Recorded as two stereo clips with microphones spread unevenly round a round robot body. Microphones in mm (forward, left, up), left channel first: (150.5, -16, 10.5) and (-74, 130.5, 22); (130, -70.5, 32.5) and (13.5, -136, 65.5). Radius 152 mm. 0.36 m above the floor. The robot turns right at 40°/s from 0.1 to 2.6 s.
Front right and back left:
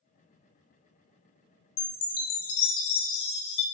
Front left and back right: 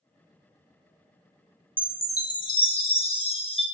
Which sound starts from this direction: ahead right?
A chime, at 1.8 s.